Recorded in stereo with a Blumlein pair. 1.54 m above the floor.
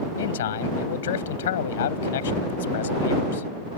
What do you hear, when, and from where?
0.2 s a man speaking: 60° left